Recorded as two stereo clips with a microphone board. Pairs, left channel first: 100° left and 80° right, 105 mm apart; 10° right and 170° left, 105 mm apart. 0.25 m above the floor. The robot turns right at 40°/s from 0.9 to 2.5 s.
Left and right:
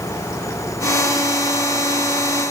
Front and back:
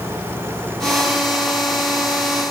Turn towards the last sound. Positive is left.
No sound to turn to.